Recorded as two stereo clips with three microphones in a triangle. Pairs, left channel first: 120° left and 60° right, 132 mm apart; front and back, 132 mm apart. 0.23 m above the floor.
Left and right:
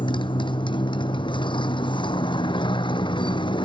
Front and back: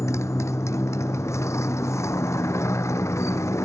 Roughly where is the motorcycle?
Left.